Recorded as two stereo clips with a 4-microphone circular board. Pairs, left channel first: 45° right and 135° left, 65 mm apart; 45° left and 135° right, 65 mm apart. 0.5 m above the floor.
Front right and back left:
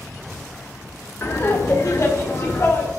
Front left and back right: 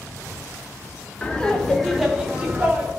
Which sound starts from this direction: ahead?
Laughter, at 1.2 s.